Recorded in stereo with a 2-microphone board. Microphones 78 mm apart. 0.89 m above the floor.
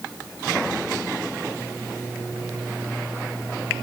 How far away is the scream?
No scream in this recording.